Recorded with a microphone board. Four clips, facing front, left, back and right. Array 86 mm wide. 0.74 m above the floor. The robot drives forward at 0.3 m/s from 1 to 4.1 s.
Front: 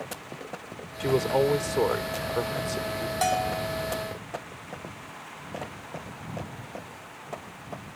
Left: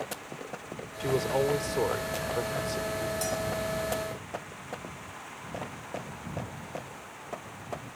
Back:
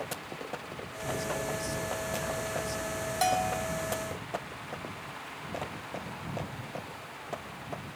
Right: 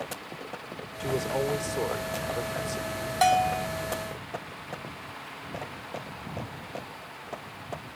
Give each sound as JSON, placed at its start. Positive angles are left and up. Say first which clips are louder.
{"t": 1.0, "sound": "a man speaking", "louder": "left 2 dB, front 11 dB", "azimuth_deg": 10}
{"t": 3.2, "sound": "a bell", "louder": "right 9 dB, front 2 dB", "azimuth_deg": -85}